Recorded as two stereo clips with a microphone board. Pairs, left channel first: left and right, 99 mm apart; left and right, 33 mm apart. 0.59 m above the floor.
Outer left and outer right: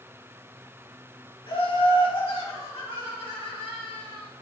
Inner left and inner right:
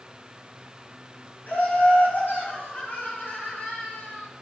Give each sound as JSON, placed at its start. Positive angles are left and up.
{"t": 1.5, "sound": "laughter", "side_deg": 70, "distance_m": 4.5}